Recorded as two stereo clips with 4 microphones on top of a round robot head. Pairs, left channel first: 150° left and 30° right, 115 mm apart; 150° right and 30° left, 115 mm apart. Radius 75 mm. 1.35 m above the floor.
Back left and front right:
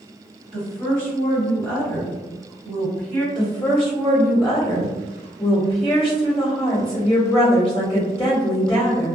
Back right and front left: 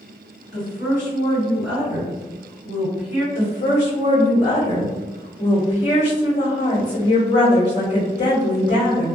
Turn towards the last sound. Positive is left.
turn(degrees=-145)